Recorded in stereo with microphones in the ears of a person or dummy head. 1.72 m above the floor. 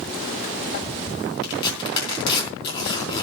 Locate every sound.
1.4 s tearing paper: 30° left (ahead or behind), 4 m